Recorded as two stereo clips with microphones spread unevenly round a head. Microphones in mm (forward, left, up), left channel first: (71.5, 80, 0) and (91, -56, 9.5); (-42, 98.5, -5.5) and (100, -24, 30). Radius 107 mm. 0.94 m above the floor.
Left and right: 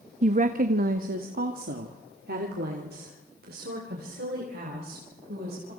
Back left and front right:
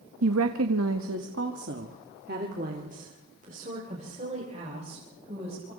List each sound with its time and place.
0.2 s a woman speaking: 50° right, 1.2 m; by 5.7 s 105° right, 5 m